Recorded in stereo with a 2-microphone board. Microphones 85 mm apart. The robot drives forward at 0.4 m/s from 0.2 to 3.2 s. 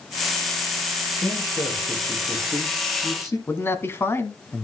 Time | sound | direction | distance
1.2 | a man speaking | 40° left (ahead or behind) | 3.5 m
3.5 | a man speaking | 30° left (ahead or behind) | 1.2 m